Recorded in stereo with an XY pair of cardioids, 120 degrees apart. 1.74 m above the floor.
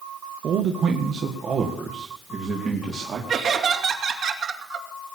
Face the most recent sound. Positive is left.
turn(degrees=-55)